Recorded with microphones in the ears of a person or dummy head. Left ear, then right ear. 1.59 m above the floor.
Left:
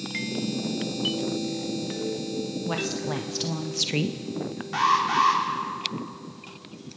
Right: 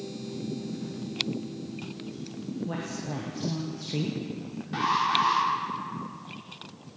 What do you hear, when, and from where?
2.7 s a woman speaking: 45° left (ahead or behind), 1.6 m; by 4.6 s 60° left (ahead or behind), 0.6 m
4.7 s an alarm: 35° left (ahead or behind), 4 m